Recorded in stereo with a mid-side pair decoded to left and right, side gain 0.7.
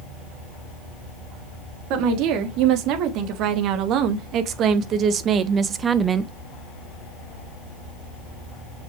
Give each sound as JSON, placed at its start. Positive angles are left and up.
{"t": 1.9, "sound": "a woman speaking", "azimuth_deg": -65, "distance_m": 3.5}